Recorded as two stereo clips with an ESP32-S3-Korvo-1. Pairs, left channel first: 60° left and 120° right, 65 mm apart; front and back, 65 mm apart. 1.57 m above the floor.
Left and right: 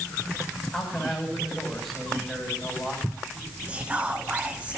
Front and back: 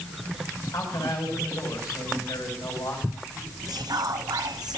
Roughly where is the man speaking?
Ahead right.